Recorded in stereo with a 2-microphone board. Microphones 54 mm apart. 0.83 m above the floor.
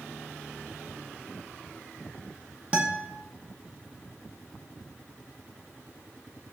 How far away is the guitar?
About 0.5 m.